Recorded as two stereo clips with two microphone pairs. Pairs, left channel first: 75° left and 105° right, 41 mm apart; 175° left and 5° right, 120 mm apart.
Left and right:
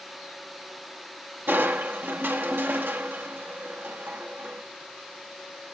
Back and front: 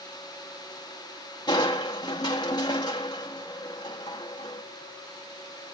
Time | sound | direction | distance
1.5 | crushing | 130° right | 1.4 m